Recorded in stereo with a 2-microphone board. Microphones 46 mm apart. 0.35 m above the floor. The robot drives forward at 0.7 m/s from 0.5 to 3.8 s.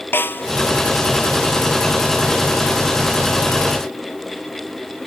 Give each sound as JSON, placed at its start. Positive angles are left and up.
{"t": 0.1, "sound": "a snare drum", "side_deg": 50}